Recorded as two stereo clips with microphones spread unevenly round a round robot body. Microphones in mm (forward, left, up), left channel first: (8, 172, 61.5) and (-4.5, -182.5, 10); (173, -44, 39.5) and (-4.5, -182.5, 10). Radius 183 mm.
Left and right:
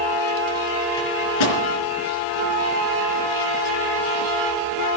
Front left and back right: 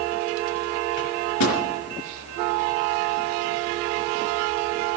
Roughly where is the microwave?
Ahead left.